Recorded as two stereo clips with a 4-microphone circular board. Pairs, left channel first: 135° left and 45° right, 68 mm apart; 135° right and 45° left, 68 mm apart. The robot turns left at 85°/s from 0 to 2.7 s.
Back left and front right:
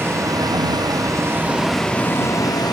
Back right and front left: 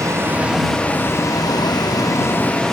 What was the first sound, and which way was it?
A vehicle, 10° left.